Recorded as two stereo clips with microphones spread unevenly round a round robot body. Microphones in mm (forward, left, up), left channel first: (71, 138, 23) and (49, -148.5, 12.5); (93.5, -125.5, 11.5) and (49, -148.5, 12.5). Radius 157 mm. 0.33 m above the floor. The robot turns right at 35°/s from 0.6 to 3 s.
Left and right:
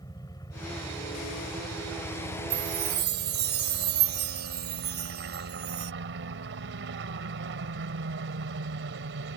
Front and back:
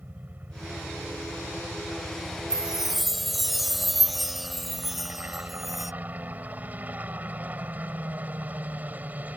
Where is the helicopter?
160° left; by 9.4 s 115° right.